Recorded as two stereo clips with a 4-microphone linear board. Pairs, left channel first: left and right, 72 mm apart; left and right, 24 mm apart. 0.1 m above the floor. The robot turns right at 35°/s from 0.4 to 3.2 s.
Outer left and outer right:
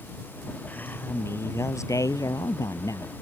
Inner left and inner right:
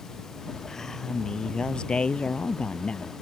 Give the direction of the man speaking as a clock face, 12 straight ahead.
11 o'clock.